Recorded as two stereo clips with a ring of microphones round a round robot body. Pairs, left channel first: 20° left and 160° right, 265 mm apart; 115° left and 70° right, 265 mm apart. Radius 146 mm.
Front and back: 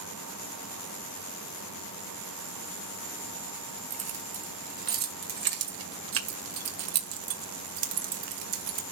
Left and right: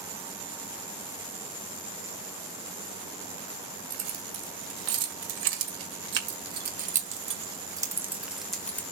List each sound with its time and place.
3.9 s keys jangling: 95° right, 3 m; by 8.8 s 165° right, 1.8 m